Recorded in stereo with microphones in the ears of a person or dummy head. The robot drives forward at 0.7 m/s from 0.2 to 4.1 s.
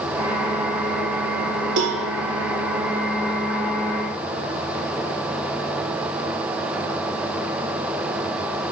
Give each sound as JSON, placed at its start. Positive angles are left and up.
{"t": 1.8, "sound": "a cowbell", "side_deg": -70, "distance_m": 1.0}